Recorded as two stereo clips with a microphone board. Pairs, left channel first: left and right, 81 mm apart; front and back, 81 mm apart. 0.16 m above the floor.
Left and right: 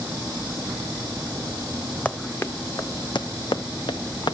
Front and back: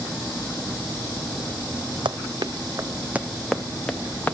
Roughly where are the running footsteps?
Behind.